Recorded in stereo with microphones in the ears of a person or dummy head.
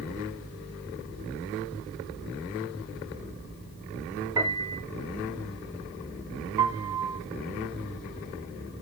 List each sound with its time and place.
4.4 s a piano: 20° right (ahead or behind), 3 m
6.6 s a piano: 25° right (ahead or behind), 1.3 m